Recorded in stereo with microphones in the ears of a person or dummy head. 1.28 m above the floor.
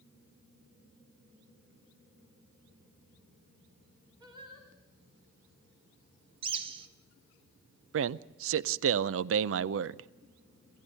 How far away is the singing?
About 3 m.